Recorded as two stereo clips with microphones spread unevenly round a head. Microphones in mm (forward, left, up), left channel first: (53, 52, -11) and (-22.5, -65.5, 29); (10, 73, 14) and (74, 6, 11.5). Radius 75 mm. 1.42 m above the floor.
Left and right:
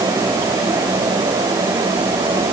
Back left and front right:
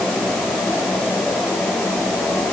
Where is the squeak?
I don't hear a squeak.